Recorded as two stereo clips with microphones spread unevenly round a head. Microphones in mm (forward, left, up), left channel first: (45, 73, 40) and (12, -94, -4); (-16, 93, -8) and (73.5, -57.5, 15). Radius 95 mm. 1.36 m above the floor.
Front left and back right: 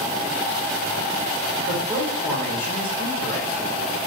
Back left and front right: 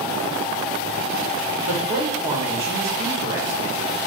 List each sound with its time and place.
1.7 s a man speaking: straight ahead, 2 m